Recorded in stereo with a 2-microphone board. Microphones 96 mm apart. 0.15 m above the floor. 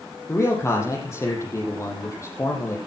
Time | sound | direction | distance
0.3 | a man speaking | 30° left (ahead or behind) | 6.5 m